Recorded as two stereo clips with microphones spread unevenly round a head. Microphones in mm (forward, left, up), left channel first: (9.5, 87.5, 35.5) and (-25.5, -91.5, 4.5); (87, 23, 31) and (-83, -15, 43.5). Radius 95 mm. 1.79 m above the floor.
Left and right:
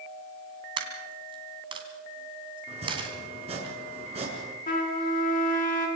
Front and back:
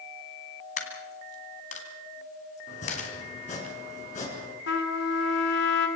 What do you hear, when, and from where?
0.8 s a dropped coin: 35° right, 2.5 m
2.7 s chopping: 40° right, 5 m
4.7 s a trumpet: 35° left, 3 m